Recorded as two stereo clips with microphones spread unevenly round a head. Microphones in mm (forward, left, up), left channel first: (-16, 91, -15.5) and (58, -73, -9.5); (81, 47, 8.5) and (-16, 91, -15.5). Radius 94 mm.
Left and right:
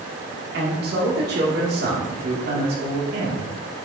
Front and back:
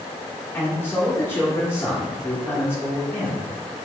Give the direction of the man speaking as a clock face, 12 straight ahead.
4 o'clock.